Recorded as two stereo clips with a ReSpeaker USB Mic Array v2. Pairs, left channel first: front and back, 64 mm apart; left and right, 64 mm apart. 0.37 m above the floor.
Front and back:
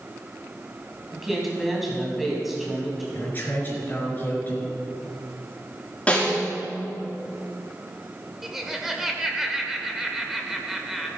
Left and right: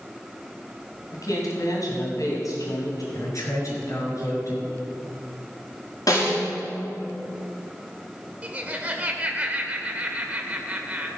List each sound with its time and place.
1.1 s a woman speaking: 95° left, 3 m
3.1 s a man speaking: 60° left, 5 m
6.1 s a snare drum: 70° left, 5 m
8.4 s laughter: 105° right, 1.3 m